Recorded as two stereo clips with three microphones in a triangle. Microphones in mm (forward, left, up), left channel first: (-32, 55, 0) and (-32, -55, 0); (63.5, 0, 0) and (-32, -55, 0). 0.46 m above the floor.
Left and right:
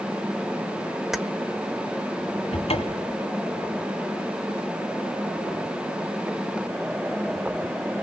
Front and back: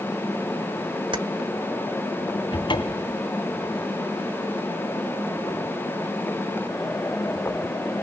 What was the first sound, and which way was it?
Keys jangling, 175° right.